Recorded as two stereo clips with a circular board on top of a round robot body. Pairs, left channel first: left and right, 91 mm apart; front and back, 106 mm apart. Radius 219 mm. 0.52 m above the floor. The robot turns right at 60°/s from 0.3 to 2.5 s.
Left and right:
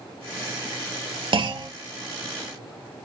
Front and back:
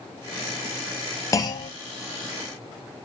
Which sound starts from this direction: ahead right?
A clunk, at 1.3 s.